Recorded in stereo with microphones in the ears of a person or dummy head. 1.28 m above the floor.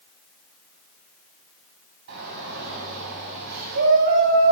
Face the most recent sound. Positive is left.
turn(degrees=-65)  # may be behind; listen again after turning